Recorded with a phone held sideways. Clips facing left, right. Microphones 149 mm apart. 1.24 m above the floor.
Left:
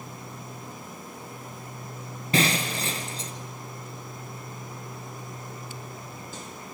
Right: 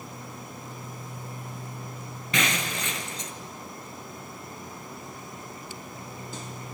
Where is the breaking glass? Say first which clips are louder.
Left 4 dB; 35° left (ahead or behind), 1.6 m.